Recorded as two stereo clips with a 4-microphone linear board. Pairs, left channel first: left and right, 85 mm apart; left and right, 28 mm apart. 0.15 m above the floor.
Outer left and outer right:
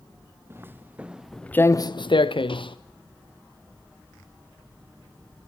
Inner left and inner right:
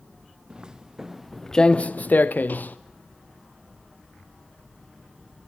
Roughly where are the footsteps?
Right.